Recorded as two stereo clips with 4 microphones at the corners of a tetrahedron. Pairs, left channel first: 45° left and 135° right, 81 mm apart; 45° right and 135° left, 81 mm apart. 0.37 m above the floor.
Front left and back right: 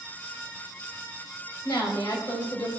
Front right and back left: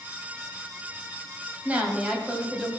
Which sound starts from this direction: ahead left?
A woman speaking, at 1.6 s.